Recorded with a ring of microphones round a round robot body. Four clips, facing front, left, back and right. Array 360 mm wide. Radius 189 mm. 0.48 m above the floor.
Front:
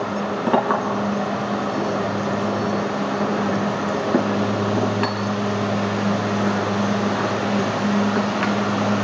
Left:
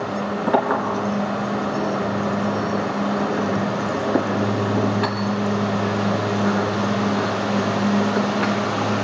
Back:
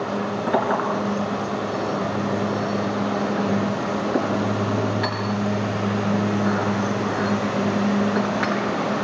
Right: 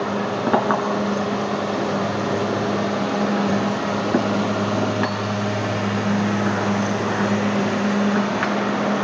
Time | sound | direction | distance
0.5 | a clink | 50° right | 4.5 m